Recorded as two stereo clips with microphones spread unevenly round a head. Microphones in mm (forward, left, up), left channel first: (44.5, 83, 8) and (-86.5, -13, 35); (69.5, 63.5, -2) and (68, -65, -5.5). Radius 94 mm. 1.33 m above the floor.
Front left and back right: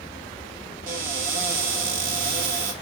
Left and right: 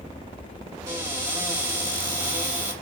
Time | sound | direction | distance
0.9 | a cupboard door | 160° right | 1.3 m